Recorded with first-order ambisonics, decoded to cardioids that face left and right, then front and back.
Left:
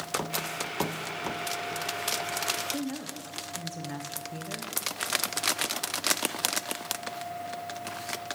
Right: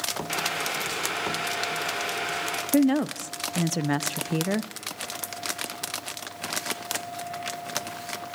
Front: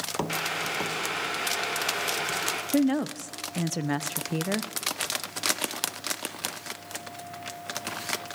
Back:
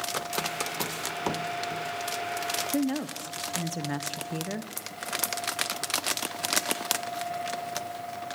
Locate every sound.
0.3 s boiling: 45° right, 1.9 m
2.7 s a woman speaking: 70° right, 0.5 m